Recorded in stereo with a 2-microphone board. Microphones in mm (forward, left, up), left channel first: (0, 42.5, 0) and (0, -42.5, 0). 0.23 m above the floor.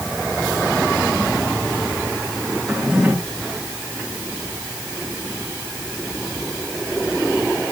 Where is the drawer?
5° right (ahead or behind), 6 m.